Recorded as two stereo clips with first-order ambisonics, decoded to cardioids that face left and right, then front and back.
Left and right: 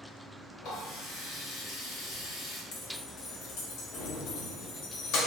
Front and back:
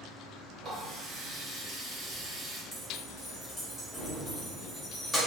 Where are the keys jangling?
85° left, 0.9 m.